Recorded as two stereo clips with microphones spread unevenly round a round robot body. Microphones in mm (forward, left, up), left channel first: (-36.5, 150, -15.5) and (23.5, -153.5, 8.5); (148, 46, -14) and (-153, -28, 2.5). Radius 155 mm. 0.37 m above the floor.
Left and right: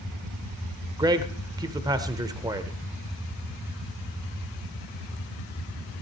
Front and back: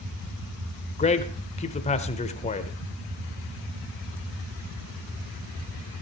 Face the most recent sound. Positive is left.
turn(degrees=-5)